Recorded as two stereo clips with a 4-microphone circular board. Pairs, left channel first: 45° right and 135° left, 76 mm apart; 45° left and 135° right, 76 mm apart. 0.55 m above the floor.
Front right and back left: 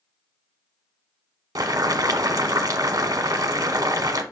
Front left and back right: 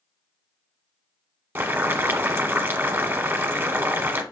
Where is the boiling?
170° left, 1.0 m.